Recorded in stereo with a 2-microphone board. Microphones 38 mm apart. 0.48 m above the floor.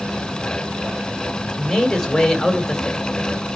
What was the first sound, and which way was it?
A man speaking, 10° left (ahead or behind).